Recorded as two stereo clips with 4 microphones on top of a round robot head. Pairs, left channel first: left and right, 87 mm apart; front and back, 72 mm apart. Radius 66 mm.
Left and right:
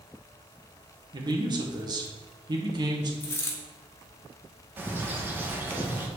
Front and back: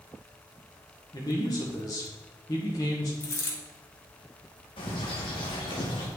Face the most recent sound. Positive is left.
turn(degrees=-25)